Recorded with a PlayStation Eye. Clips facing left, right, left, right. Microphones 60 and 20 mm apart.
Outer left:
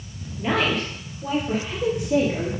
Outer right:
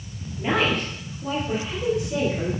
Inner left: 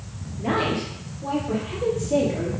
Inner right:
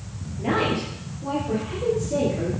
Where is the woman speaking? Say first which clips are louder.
Even, even; 5° right (ahead or behind), 3.5 m; by 2.5 s 35° left (ahead or behind), 3.5 m.